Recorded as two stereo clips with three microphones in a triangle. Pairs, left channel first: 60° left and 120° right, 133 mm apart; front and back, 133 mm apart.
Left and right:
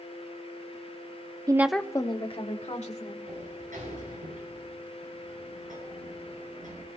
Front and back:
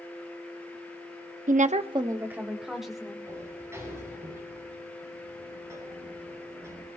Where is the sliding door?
110° right, 7 m.